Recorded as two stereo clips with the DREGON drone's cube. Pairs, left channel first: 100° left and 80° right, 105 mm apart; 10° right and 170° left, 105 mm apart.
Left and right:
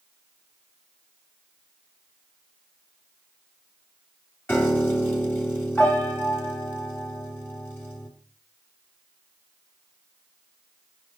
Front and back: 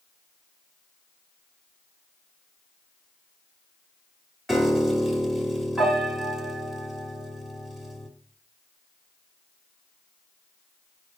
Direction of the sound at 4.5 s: 80° left.